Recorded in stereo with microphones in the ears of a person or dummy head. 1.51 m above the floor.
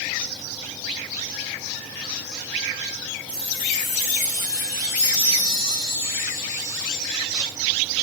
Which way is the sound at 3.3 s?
35° left (ahead or behind).